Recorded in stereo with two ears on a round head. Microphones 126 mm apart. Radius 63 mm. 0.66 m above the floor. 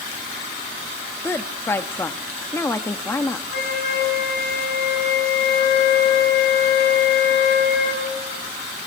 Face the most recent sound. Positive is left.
turn(degrees=80)